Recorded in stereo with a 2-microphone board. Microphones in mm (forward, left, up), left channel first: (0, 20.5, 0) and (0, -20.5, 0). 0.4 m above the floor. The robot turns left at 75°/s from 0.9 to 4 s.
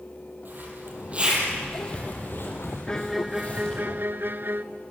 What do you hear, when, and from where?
0.5 s a zipper: 50° right (ahead or behind), 7 m; by 3.8 s 15° left (ahead or behind), 7 m
2.9 s a violin: 20° left, 0.9 m; by 4.6 s 65° right, 0.9 m